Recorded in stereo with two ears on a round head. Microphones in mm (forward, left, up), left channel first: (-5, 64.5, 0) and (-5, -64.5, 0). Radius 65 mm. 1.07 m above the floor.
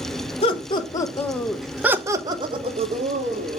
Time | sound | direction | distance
0.4 | laughter | 40° left (ahead or behind) | 1.5 m